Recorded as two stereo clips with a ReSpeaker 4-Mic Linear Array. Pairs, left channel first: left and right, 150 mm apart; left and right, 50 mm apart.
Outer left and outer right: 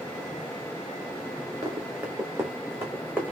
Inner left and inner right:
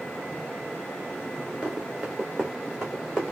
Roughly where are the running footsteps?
Centre.